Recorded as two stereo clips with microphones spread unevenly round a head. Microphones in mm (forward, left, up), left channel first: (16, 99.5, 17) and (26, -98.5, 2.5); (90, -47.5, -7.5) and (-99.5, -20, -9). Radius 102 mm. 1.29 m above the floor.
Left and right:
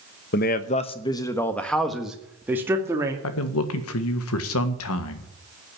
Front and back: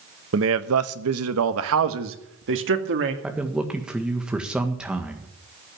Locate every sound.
0.3 s a man speaking: 135° left, 1.0 m; by 3.1 s 165° right, 2.5 m
3.2 s a man speaking: 85° left, 1.7 m